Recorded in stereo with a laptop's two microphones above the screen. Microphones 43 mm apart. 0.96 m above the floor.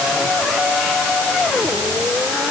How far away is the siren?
No siren in this recording.